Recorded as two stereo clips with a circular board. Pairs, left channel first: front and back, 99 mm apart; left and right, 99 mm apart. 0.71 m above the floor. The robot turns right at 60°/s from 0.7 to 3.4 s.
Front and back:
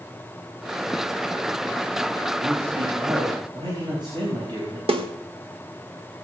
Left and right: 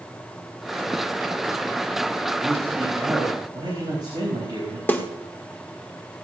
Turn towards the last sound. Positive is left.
turn(degrees=160)